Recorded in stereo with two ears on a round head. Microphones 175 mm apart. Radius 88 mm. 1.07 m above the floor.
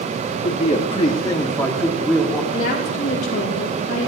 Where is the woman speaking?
40° left (ahead or behind), 4 m.